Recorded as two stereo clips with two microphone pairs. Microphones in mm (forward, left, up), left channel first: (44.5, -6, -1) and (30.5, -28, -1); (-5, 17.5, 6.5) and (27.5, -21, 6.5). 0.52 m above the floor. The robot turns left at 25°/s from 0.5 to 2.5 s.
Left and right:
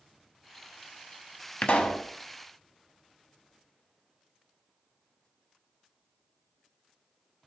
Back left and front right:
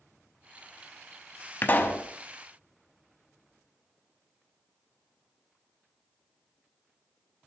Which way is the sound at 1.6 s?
85° left.